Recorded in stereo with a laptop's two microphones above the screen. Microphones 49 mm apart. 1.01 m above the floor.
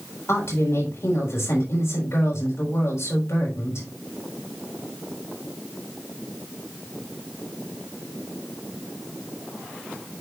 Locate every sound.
0.3 s a woman speaking: 65° left (ahead or behind), 3.5 m